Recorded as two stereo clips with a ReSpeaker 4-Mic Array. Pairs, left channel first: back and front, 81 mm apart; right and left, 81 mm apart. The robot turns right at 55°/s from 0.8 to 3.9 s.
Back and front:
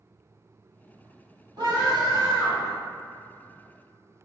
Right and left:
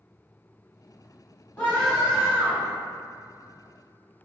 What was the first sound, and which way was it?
A scream, 20° right.